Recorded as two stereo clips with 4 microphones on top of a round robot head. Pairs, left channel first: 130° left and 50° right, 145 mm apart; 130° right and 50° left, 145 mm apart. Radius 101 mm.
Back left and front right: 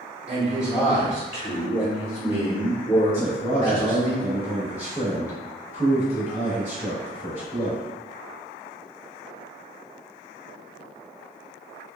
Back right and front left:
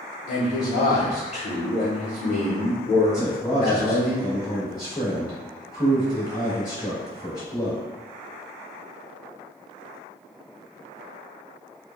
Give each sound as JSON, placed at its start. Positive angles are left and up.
{"t": 0.3, "sound": "a man speaking", "azimuth_deg": -160, "distance_m": 1.0}
{"t": 3.1, "sound": "a man speaking", "azimuth_deg": 165, "distance_m": 1.5}